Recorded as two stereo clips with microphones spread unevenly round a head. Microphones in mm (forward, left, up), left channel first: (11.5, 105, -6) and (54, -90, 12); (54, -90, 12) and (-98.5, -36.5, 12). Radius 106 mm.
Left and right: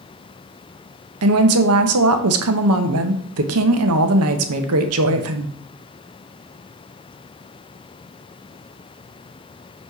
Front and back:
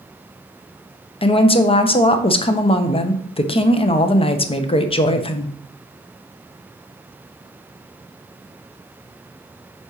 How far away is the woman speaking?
About 0.9 m.